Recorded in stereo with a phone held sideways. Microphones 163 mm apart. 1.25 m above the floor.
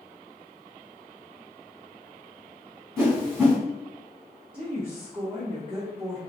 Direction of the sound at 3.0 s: 15° right (ahead or behind).